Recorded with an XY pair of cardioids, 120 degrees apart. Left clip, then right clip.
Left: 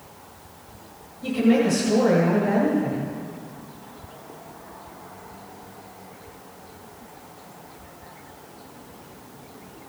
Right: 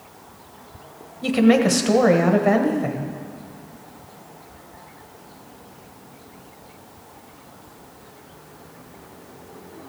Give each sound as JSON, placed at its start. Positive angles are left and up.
{"t": 1.2, "sound": "a woman speaking", "azimuth_deg": -65, "distance_m": 1.4}